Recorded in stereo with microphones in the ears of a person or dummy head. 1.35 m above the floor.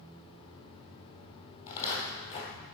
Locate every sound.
1.7 s footsteps: 25° left (ahead or behind), 1.9 m